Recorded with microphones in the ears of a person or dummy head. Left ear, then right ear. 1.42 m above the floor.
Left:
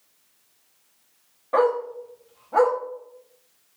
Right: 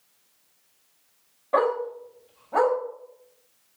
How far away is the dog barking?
About 0.8 m.